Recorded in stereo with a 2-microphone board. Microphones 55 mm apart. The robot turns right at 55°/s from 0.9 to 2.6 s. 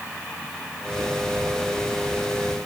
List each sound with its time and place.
Only background noise.